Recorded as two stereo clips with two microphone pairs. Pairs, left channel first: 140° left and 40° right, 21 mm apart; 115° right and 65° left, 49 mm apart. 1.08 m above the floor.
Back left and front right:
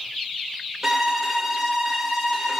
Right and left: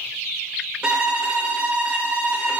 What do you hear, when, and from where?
0.8 s a violin: 20° left, 0.7 m